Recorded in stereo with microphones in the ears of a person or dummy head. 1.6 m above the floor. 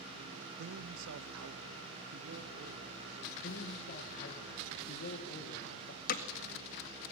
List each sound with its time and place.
0.6 s a man speaking: 55° right (ahead or behind), 0.9 m; by 3.3 s 65° right (ahead or behind), 3 m
3.4 s a man speaking: 45° left (ahead or behind), 1.8 m
6.1 s hammering: 50° left (ahead or behind), 1.8 m